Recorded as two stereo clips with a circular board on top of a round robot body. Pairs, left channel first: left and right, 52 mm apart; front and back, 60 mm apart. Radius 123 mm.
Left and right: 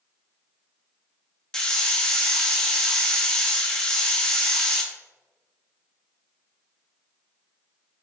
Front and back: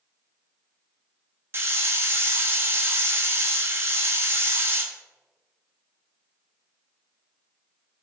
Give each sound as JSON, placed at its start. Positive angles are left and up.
{"t": 1.5, "sound": "a hiss", "azimuth_deg": 165, "distance_m": 0.9}